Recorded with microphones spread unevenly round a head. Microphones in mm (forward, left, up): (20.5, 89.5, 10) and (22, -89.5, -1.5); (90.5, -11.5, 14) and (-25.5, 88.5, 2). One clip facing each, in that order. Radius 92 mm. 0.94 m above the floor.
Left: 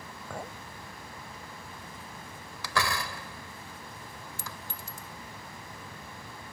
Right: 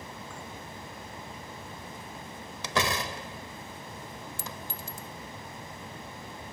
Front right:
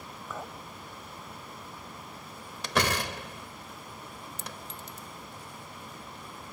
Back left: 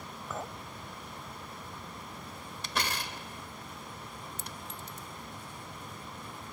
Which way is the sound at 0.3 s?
55° left.